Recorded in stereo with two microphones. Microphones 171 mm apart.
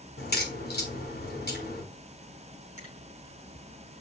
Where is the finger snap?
45° left (ahead or behind), 5.5 m.